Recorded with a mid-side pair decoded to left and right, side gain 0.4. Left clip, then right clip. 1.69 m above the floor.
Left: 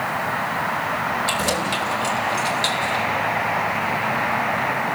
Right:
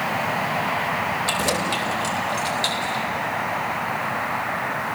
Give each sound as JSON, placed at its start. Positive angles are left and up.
{"t": 1.3, "sound": "keys jangling", "azimuth_deg": -5, "distance_m": 4.5}